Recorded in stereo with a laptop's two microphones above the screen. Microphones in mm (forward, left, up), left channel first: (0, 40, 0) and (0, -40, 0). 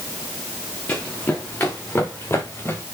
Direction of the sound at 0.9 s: 20° left (ahead or behind).